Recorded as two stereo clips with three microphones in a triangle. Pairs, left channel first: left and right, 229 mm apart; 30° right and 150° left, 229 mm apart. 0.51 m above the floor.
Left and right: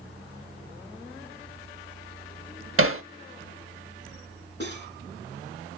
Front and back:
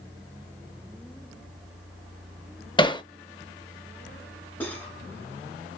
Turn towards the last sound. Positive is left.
turn(degrees=50)